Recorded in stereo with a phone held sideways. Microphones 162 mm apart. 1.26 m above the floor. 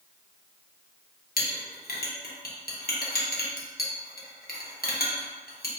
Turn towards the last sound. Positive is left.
turn(degrees=70)  # may be behind; listen again after turning